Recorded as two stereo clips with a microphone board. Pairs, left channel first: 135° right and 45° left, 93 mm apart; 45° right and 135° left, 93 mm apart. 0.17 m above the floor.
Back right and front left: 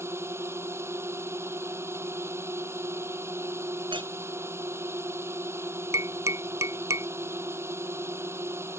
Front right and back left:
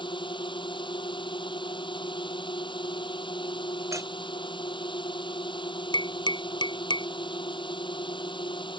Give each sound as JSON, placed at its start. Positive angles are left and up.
{"t": 0.0, "sound": "a drone", "azimuth_deg": -15}
{"t": 3.9, "sound": "a clink", "azimuth_deg": 75}
{"t": 5.9, "sound": "tapping", "azimuth_deg": -15}